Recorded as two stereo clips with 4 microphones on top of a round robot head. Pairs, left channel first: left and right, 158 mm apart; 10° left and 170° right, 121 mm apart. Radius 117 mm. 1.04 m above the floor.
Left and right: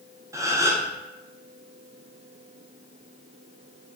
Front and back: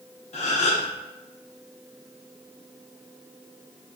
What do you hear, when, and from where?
0.3 s a gasp: 20° right, 0.7 m